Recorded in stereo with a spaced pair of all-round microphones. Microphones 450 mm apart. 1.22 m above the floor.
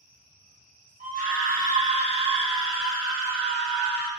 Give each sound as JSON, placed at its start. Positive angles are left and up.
{"t": 1.0, "sound": "a scream", "side_deg": -20, "distance_m": 0.8}